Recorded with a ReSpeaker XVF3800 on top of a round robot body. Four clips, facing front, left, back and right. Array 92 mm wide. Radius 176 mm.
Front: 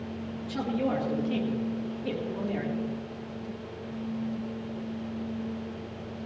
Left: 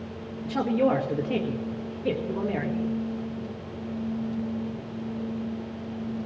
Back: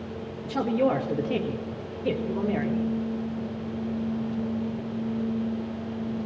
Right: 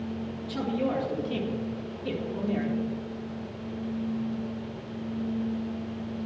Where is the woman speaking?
125° left, 1.9 m.